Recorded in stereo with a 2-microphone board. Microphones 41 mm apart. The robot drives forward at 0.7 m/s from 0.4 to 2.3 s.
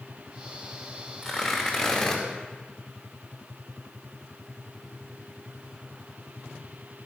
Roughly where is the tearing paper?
Centre.